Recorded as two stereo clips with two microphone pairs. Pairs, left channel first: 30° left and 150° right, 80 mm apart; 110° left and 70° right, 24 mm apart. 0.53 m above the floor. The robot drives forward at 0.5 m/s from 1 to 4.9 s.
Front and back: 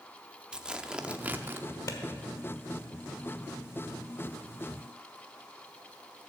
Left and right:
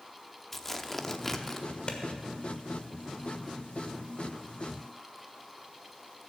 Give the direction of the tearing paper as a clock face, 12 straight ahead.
6 o'clock.